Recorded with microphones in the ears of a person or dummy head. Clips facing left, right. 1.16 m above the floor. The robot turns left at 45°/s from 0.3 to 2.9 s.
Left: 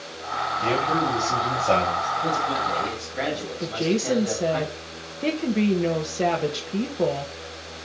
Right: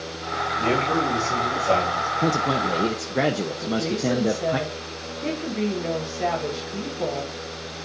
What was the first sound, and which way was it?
A man speaking, 145° right.